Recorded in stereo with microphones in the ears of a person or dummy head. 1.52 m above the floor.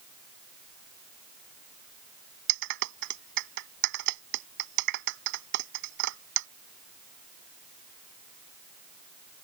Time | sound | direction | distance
2.5 | a clap | 65° right (ahead or behind) | ?